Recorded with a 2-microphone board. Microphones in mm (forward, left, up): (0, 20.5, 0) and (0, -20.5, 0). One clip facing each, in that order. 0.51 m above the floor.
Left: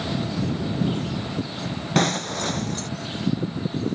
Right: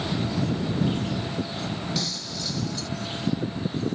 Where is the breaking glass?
50° left (ahead or behind).